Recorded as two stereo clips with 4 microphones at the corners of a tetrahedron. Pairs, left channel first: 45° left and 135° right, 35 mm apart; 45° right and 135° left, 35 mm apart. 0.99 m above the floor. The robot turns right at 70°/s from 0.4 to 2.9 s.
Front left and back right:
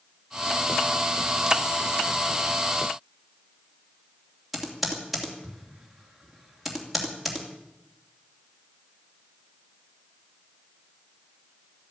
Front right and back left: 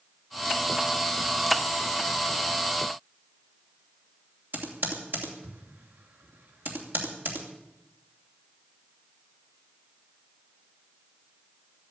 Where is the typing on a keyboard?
140° left, 2.5 m.